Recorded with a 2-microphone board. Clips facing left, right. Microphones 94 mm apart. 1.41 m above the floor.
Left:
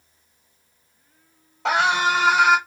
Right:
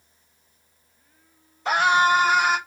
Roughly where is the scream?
Left.